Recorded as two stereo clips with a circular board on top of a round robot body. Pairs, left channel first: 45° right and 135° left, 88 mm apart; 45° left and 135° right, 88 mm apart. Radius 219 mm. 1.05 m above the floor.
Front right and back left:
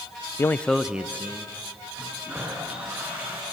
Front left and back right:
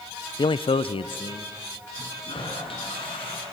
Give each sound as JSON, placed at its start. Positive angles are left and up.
{"t": 0.4, "sound": "a man speaking", "azimuth_deg": 10, "distance_m": 0.5}
{"t": 1.9, "sound": "a toilet flushing", "azimuth_deg": 60, "distance_m": 4.0}